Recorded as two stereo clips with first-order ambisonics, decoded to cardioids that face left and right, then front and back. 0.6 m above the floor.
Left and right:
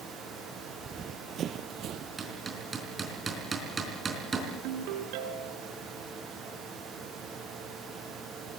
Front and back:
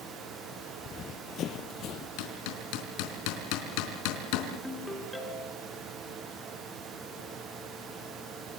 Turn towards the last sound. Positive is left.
turn(degrees=-85)